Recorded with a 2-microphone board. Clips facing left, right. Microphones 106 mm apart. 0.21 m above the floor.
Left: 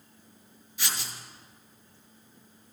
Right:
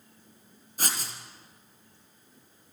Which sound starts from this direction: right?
Writing, at 0.8 s.